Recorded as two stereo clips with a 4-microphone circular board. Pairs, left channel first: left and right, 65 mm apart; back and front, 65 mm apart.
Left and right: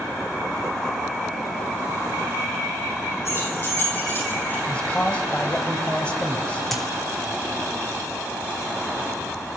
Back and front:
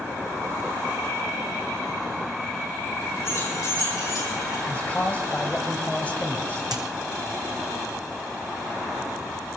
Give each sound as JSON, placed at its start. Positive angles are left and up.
{"t": 3.2, "sound": "keys jangling", "azimuth_deg": 135, "distance_m": 8.0}
{"t": 4.7, "sound": "a man speaking", "azimuth_deg": 135, "distance_m": 1.3}
{"t": 6.7, "sound": "a dropped coin", "azimuth_deg": 5, "distance_m": 1.8}